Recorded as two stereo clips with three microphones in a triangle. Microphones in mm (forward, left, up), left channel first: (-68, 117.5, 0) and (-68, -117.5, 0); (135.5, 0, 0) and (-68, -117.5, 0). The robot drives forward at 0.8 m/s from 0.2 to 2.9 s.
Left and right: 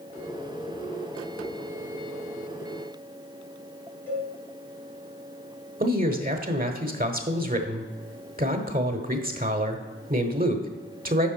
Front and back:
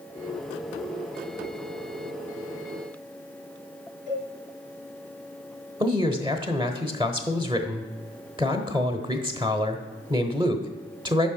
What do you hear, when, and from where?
4.1 s a cowbell: 170° left, 3 m
5.8 s a man speaking: 95° right, 1.0 m